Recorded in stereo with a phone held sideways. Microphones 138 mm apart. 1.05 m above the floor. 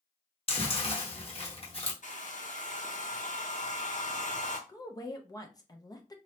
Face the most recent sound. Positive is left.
turn(degrees=25)  # may be behind; listen again after turning